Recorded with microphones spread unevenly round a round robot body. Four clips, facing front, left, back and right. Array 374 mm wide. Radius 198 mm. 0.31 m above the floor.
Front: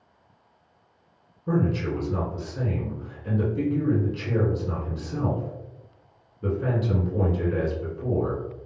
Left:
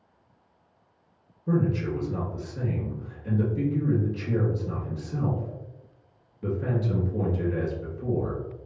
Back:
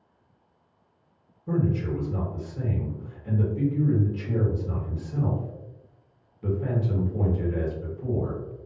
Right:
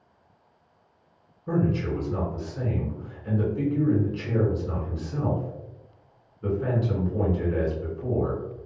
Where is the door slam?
No door slam in this recording.